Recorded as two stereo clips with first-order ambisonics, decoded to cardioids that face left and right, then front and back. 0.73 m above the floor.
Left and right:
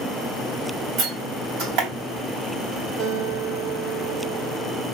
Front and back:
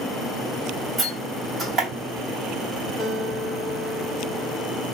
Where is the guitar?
95° right, 3 m.